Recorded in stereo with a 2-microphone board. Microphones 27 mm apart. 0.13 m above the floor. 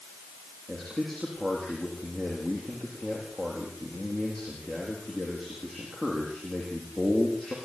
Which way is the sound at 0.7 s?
15° left (ahead or behind).